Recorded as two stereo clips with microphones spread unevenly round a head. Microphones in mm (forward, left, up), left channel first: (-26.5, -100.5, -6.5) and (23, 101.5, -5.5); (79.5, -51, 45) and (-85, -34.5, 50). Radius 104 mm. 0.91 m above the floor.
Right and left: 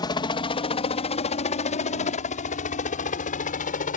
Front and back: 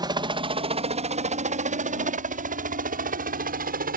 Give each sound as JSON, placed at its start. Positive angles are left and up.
{"t": 0.0, "sound": "a helicopter", "azimuth_deg": -150}